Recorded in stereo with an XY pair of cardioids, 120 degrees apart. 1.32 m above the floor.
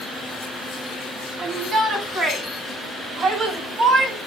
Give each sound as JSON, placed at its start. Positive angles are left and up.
{"t": 1.4, "sound": "a shout", "azimuth_deg": -50, "distance_m": 9.0}